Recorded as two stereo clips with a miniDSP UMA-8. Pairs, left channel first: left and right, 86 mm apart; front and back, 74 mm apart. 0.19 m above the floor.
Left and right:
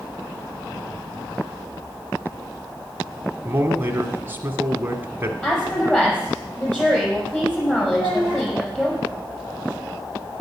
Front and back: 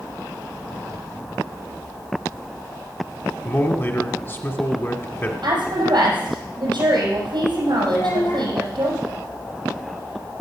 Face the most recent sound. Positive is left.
turn(degrees=25)